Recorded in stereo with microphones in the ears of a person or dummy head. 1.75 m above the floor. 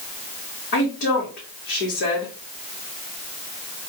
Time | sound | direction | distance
0.7 | a woman speaking | 65° left (ahead or behind) | 2.5 m